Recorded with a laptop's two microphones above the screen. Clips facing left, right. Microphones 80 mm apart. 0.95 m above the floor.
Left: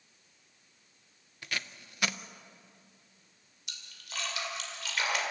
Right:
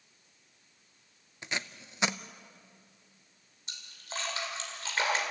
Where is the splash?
35° right (ahead or behind), 2.5 m.